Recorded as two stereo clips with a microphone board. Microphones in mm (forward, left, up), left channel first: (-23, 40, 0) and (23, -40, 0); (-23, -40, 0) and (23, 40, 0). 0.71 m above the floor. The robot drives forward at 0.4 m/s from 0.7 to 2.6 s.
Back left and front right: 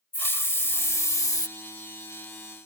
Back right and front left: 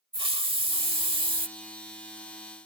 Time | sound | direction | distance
0.1 | a hiss | 55° left | ?